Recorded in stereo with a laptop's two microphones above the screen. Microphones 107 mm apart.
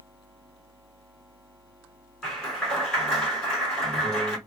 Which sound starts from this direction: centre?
A clap, at 2.2 s.